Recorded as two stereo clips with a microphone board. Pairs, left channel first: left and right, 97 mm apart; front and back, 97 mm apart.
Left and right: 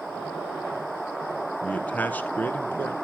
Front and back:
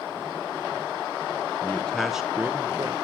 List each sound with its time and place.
1.6 s a man speaking: 35° left, 1.1 m; by 2.9 s 150° left, 1.3 m